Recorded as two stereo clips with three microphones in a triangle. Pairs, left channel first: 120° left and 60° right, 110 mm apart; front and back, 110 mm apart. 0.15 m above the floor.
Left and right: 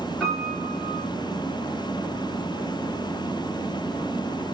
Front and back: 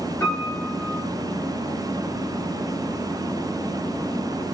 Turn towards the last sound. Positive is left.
turn(degrees=40)